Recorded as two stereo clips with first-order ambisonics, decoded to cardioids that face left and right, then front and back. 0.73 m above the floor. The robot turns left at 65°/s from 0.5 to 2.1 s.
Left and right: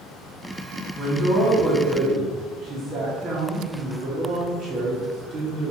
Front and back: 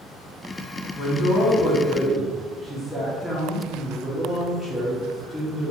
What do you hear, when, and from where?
0.9 s a man speaking: straight ahead, 1.0 m; by 5.7 s 75° right, 1.0 m